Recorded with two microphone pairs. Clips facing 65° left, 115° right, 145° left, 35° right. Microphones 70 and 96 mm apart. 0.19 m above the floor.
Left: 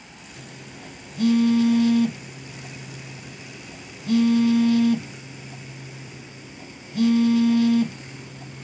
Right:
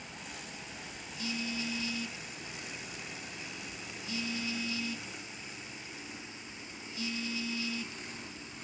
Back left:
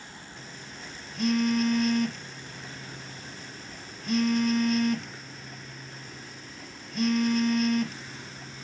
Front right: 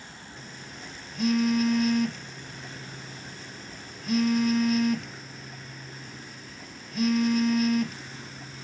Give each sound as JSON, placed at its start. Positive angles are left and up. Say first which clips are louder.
{"t": 0.4, "sound": "a phone buzzing", "louder": "left 4 dB, front right 2 dB", "azimuth_deg": 50}